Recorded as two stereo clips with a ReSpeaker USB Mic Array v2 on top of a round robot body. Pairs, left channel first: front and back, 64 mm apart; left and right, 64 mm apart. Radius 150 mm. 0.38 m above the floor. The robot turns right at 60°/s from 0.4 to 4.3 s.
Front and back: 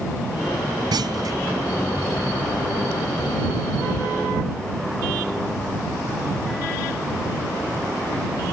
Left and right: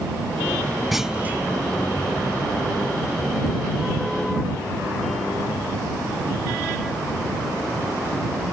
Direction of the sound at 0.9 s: Straight behind.